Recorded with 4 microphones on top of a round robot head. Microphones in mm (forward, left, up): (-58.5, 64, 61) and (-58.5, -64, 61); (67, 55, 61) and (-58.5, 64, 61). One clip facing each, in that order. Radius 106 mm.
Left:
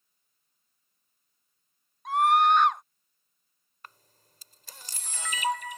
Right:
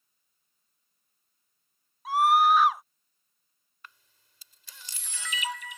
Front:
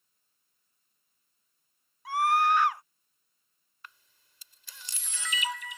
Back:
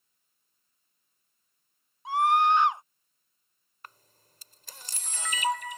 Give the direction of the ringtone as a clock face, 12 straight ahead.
I don't hear a ringtone.